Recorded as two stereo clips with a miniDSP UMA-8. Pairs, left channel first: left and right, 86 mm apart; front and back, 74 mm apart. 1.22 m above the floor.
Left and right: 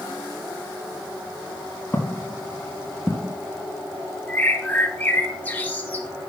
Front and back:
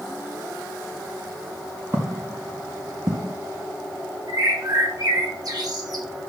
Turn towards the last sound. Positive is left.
turn(degrees=160)